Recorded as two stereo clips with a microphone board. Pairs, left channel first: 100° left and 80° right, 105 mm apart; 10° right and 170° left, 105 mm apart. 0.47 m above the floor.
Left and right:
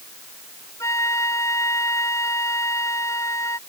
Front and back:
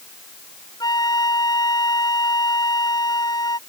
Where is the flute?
40° left.